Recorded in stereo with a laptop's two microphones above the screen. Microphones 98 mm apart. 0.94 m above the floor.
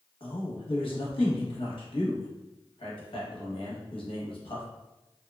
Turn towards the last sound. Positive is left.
turn(degrees=60)  # may be behind; listen again after turning